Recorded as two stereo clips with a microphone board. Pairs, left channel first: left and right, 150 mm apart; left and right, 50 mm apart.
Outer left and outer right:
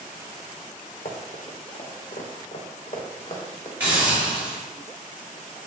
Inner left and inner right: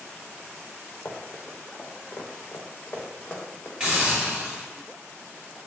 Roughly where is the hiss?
Centre.